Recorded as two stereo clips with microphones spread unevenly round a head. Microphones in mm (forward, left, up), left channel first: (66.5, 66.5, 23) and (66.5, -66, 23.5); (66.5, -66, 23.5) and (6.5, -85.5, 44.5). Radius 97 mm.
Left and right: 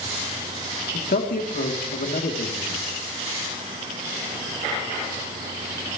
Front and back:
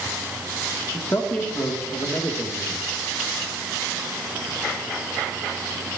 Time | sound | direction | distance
0.9 | a man speaking | 85° left | 3 m